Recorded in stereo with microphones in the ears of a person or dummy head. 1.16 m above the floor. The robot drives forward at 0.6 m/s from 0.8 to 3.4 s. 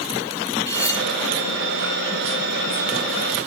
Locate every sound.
0.7 s cutlery clinking: 20° left (ahead or behind), 1.4 m